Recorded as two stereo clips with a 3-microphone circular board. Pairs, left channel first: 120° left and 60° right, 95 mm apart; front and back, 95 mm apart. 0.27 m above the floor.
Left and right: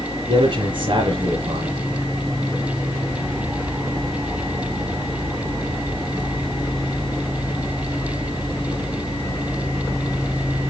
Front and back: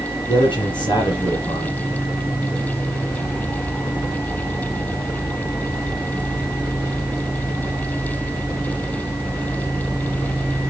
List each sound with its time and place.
0.3 s a man speaking: 30° right, 3 m